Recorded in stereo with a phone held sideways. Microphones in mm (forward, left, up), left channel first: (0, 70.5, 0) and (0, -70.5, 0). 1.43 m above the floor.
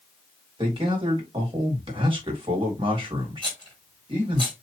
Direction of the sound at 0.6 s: 40° right (ahead or behind).